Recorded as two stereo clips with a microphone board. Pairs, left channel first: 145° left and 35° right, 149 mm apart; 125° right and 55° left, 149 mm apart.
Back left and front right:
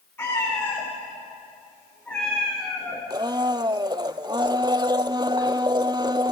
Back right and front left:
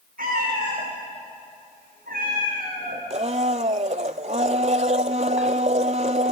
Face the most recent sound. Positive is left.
turn(degrees=25)